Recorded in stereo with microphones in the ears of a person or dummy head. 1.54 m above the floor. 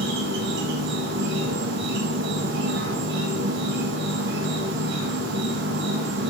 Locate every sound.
0.0 s an insect: 55° right (ahead or behind), 1.2 m